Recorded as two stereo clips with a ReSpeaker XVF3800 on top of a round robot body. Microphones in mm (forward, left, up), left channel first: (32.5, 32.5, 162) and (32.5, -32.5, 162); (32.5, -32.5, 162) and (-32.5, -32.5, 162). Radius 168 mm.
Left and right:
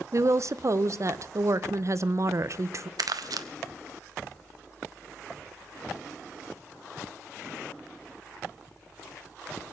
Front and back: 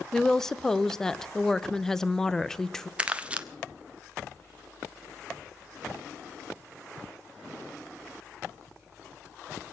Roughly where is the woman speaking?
Right.